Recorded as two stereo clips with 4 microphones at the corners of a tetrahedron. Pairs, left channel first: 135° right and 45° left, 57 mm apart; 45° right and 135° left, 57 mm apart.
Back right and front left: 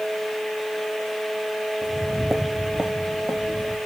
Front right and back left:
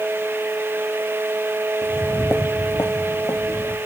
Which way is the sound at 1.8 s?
115° right.